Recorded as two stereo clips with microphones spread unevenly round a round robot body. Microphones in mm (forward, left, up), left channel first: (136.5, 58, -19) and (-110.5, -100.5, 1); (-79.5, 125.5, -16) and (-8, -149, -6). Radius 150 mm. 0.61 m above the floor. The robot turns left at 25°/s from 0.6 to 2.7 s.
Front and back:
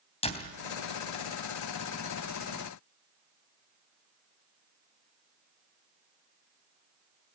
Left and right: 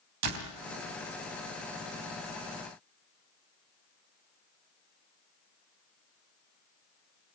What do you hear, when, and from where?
0.2 s a door slam: 35° right, 3 m